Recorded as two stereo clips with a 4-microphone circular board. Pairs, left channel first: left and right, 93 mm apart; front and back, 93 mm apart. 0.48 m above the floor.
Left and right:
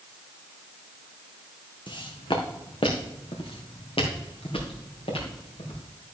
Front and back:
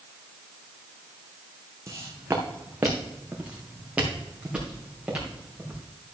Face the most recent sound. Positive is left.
turn(degrees=100)